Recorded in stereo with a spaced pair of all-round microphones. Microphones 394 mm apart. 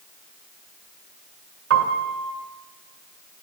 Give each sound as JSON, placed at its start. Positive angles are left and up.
{"t": 1.7, "sound": "a piano", "side_deg": -35, "distance_m": 1.7}